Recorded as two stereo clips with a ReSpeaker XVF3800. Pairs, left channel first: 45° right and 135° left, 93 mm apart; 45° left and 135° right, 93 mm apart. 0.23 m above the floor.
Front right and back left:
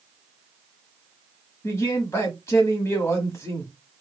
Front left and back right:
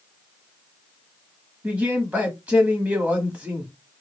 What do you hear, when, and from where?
1.6 s a man speaking: 70° right, 1.0 m